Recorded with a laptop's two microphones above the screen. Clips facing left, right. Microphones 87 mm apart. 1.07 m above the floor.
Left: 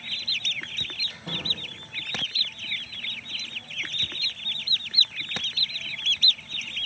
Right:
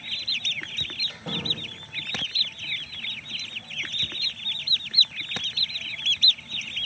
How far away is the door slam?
About 5.5 m.